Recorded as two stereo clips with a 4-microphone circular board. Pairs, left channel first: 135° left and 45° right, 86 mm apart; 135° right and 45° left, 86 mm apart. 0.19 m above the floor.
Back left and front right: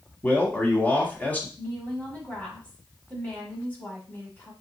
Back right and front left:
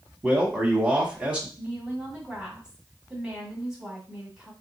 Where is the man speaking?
95° left, 1.0 m.